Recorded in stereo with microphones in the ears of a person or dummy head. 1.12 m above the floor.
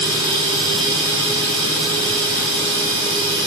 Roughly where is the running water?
Left.